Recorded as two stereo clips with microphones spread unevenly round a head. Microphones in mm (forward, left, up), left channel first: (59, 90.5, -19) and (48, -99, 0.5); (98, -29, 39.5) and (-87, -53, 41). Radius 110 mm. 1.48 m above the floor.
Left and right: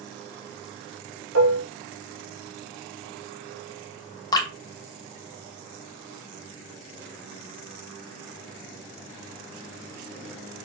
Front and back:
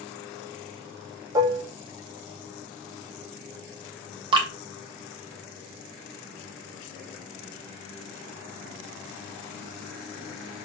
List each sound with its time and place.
1.4 s dishes clattering: 100° right, 1.8 m
4.3 s dripping: 145° left, 1.1 m